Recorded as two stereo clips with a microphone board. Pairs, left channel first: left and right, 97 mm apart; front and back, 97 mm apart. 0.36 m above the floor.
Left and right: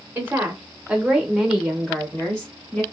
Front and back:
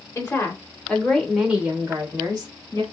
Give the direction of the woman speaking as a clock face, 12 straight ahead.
1 o'clock.